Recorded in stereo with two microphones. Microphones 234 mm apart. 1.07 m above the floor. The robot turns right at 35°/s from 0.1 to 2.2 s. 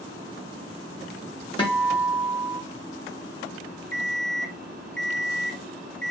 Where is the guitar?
20° left (ahead or behind), 1.0 m; by 2.6 s 5° left (ahead or behind), 1.0 m.